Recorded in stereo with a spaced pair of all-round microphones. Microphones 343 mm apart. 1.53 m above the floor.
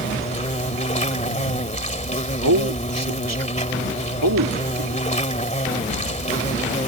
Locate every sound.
0.0 s an insect: 20° left (ahead or behind)
2.4 s a man speaking: 70° right (ahead or behind)